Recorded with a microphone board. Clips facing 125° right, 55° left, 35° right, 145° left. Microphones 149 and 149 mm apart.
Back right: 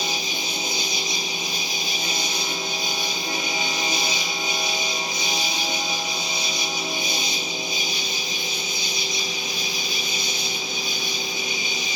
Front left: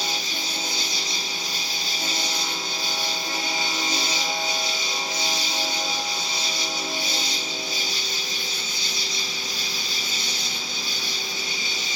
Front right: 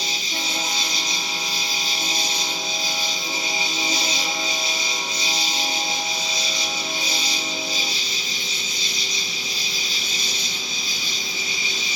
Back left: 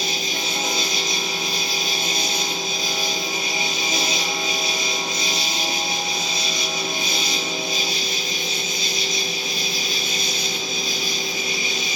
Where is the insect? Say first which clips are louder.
Back right 2 dB, back left 4 dB; 65° right, 1.5 m.